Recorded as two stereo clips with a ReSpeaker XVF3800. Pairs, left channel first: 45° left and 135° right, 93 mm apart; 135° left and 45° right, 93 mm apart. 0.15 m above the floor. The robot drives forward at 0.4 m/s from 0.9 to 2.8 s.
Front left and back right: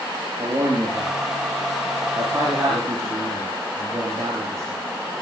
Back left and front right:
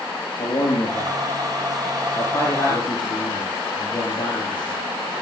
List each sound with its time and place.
0.4 s a man speaking: 170° left, 7 m